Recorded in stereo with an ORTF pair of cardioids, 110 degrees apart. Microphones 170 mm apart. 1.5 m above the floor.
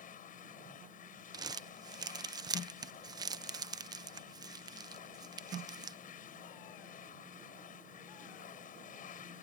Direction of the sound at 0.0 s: 55° left.